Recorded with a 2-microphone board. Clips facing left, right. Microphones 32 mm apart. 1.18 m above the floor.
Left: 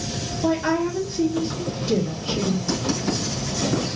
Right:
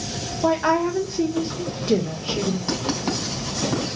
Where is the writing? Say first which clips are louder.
Left 1 dB; 40° right (ahead or behind), 4.5 m.